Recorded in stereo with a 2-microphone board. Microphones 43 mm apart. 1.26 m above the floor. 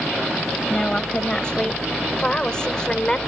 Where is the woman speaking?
20° left (ahead or behind); by 3.2 s 15° left (ahead or behind).